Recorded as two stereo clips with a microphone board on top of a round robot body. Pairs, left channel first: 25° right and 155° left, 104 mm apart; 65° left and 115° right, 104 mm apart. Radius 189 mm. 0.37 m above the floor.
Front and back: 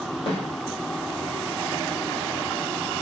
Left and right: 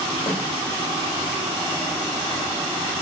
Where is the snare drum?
10° left, 3.5 m.